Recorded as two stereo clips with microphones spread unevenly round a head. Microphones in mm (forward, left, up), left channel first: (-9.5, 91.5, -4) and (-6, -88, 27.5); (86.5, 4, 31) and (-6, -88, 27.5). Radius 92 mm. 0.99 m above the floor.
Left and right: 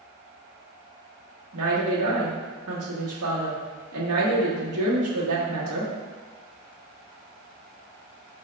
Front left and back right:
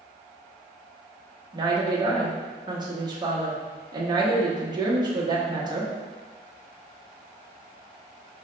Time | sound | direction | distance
1.5 | a woman speaking | 80° right | 1.1 m